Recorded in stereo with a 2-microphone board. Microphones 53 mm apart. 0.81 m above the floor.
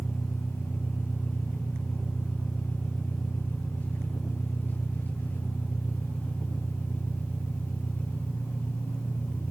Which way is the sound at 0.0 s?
35° left (ahead or behind).